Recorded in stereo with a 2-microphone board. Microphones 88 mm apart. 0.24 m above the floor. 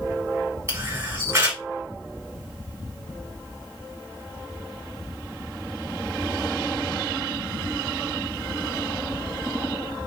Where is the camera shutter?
30° right (ahead or behind), 1.5 m.